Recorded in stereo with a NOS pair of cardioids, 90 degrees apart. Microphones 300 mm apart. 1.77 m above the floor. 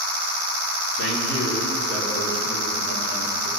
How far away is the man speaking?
About 2.5 m.